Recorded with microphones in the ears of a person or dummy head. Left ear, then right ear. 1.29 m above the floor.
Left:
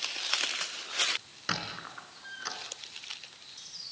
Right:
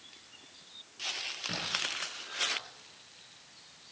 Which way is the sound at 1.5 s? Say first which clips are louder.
Left 1 dB; 40° left (ahead or behind).